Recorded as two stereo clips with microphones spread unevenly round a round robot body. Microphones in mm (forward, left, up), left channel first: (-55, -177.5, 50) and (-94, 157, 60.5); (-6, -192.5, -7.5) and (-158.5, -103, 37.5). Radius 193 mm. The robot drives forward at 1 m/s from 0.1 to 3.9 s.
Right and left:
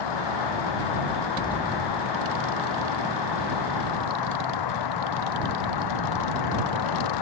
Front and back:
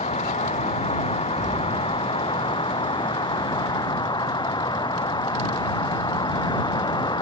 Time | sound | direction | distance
0.0 | an insect | 80° right | ?
1.4 | an explosion | 160° right | ?